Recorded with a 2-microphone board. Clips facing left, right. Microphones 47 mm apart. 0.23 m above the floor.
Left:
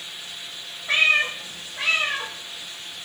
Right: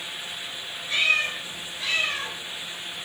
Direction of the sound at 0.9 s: 80° left.